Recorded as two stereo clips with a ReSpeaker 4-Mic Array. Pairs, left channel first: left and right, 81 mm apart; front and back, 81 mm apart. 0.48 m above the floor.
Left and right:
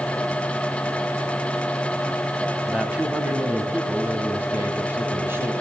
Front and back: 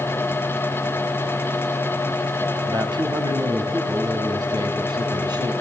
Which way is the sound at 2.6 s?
165° right.